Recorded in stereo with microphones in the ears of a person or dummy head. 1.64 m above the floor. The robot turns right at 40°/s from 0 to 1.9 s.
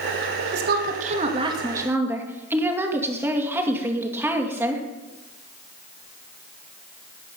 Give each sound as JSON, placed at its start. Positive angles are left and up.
{"t": 0.5, "sound": "a woman speaking", "azimuth_deg": -70, "distance_m": 2.0}